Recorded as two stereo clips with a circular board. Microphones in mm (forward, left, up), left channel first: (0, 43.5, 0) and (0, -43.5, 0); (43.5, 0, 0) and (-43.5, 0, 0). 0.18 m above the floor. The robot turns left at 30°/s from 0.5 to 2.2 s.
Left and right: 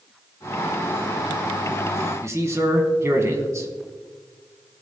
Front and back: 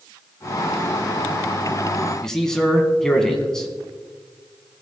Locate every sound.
2.2 s a man speaking: 80° right, 1.4 m